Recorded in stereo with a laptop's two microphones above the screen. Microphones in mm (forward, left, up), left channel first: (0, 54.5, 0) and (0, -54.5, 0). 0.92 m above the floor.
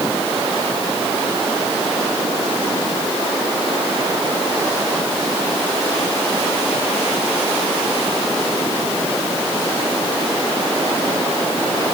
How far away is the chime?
No chime in this recording.